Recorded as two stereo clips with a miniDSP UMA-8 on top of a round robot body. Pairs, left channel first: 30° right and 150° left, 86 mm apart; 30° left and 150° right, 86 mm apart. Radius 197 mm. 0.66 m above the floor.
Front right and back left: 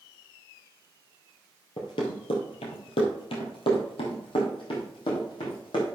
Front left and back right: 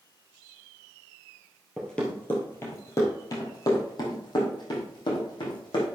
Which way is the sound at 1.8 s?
55° right.